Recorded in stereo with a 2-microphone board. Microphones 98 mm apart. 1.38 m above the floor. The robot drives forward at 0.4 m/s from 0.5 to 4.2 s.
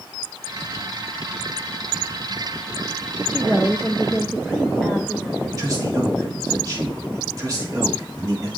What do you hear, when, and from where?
3.3 s a woman speaking: 10° right (ahead or behind), 0.9 m; by 5.5 s 5° right (ahead or behind), 1.2 m
5.6 s a man speaking: 40° right (ahead or behind), 2 m